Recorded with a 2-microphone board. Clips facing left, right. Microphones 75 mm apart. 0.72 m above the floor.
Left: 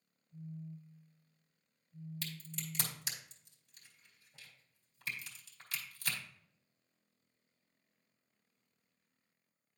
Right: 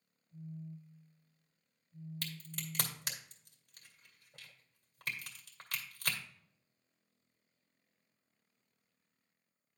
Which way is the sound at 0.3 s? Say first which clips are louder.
Even; 30° right (ahead or behind).